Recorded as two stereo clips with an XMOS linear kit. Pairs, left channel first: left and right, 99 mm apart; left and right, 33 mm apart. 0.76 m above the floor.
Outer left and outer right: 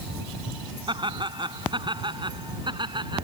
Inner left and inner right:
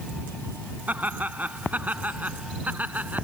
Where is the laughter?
50° right (ahead or behind).